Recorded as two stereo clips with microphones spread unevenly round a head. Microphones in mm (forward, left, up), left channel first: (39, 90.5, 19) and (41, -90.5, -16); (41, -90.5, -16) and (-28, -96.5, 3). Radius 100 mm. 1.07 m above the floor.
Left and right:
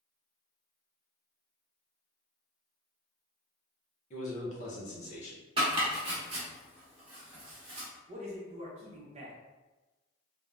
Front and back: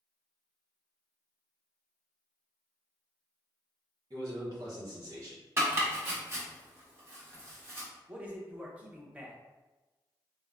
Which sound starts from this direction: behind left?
A man speaking, at 4.1 s.